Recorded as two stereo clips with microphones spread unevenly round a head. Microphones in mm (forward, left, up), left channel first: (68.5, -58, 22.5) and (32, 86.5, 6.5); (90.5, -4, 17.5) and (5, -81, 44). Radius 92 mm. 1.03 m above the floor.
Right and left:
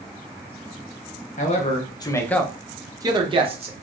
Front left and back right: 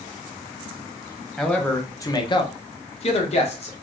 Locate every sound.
1.4 s a man speaking: 35° right, 1.0 m; by 3.7 s 60° left, 1.2 m